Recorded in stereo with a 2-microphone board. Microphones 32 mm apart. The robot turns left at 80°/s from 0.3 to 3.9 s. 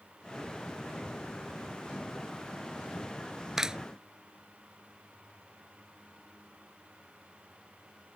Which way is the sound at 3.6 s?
15° right (ahead or behind).